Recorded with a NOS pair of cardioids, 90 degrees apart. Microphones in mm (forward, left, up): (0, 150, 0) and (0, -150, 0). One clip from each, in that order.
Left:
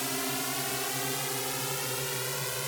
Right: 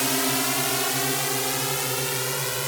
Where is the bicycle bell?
I don't hear a bicycle bell.